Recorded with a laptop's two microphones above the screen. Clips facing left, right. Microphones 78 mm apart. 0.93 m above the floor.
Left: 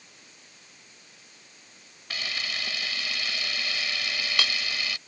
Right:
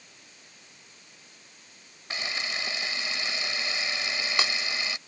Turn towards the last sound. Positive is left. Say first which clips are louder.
# right 1 dB
turn(degrees=-20)  # may be behind; listen again after turning